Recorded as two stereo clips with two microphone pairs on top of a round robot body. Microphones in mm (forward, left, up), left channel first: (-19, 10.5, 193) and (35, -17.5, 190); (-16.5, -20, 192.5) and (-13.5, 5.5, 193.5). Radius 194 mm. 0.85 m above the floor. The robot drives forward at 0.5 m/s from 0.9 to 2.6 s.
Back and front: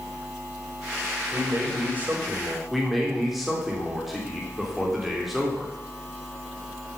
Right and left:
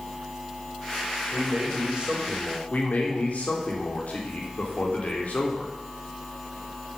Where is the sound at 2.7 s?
115° right, 4 m.